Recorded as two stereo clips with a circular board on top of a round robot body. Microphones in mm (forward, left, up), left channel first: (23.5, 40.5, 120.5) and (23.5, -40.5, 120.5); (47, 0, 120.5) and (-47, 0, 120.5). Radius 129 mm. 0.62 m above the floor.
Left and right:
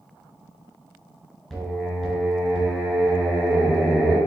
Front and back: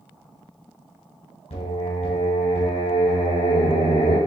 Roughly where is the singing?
Ahead.